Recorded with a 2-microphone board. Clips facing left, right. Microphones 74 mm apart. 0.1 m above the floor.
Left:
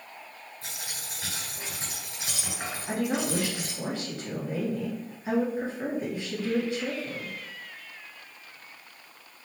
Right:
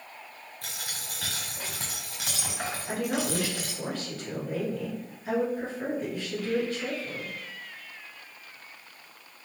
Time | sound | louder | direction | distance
0.6 | a dropped coin | right 2 dB | 75° right (ahead or behind) | 2 m
2.9 | a woman speaking | left 2 dB | 20° left (ahead or behind) | 1.6 m